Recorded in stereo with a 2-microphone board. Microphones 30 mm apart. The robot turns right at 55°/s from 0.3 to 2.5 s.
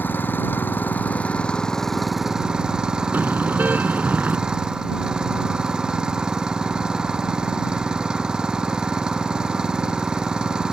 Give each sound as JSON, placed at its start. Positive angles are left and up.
{"t": 0.0, "sound": "an engine running", "azimuth_deg": 85}
{"t": 3.1, "sound": "a car horn", "side_deg": -70}